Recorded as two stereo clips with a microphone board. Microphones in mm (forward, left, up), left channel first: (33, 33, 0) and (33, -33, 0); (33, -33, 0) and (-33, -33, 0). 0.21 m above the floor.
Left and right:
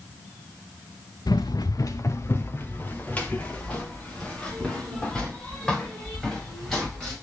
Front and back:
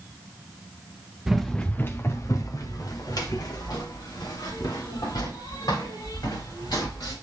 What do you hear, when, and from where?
1.3 s running footsteps: 95° left, 1.2 m; by 7.1 s 5° left, 9 m